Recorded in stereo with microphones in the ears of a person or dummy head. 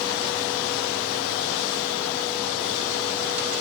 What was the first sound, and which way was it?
Only background noise.